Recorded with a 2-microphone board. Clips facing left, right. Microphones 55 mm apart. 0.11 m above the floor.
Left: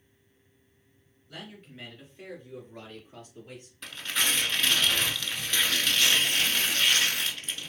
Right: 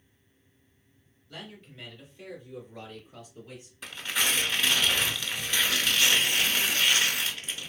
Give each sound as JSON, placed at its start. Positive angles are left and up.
{"t": 1.3, "sound": "a man speaking", "side_deg": 20, "distance_m": 1.9}
{"t": 3.8, "sound": "tearing paper", "side_deg": -5, "distance_m": 0.7}